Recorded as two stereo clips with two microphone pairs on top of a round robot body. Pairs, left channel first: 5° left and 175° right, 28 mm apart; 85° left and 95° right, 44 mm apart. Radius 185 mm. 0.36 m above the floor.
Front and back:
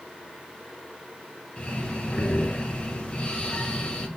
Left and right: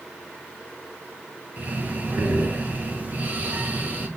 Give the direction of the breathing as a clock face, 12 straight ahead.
2 o'clock.